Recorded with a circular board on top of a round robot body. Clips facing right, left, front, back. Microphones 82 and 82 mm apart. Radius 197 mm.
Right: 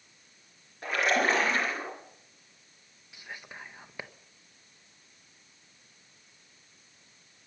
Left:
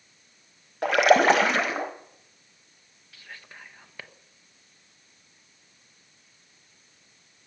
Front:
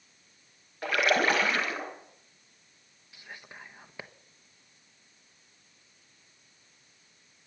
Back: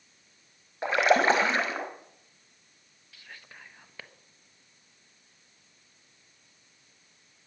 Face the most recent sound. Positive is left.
turn(degrees=-45)